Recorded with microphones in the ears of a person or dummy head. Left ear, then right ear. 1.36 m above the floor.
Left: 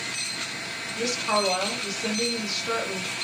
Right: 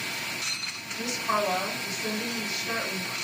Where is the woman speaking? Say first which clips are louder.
Left 3 dB; 50° left (ahead or behind), 1.5 m.